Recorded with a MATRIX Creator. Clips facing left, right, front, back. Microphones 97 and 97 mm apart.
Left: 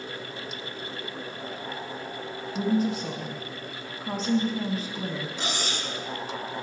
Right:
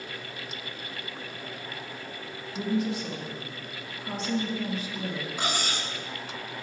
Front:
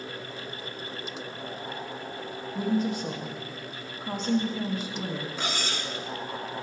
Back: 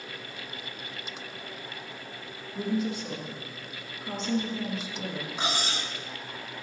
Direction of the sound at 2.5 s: 40° left.